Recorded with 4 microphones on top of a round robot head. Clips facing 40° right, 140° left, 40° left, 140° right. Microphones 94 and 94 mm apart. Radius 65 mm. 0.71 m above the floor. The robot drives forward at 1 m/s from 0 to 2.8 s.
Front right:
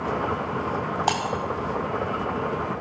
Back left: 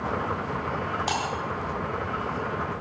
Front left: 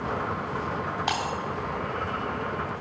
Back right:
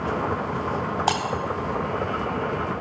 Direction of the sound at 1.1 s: 85° right.